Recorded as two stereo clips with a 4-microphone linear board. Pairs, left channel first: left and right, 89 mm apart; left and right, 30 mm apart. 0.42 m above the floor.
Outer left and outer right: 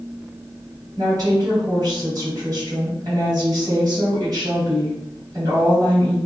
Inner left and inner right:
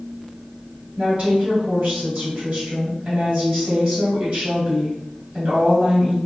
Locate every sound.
1.0 s a woman speaking: 45° right (ahead or behind), 2.0 m